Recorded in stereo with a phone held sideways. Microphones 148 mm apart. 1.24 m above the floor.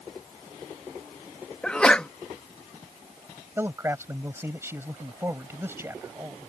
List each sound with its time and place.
1.6 s a sneeze: 5° left (ahead or behind)
3.6 s a man speaking: 15° right (ahead or behind)